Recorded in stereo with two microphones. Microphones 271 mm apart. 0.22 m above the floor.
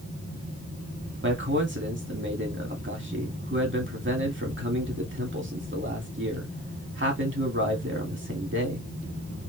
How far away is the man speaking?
About 1.8 m.